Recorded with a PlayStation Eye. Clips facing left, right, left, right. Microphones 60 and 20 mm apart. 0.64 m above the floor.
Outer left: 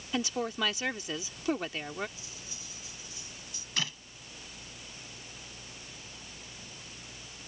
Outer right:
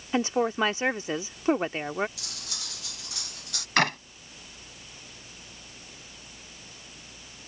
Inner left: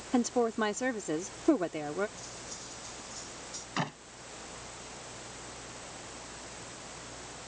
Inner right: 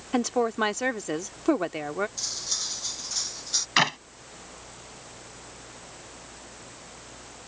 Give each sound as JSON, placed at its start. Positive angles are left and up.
{"t": 0.1, "sound": "a woman speaking", "side_deg": -30}
{"t": 2.2, "sound": "cutlery clinking", "side_deg": -65}
{"t": 3.8, "sound": "a clap", "side_deg": -55}